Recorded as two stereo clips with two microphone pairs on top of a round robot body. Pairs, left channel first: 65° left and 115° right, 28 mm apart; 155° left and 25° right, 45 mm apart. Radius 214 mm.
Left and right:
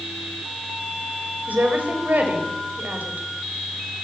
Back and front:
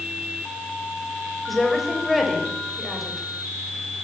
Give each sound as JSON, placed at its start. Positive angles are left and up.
{"t": 1.5, "sound": "a woman speaking", "azimuth_deg": -115, "distance_m": 5.0}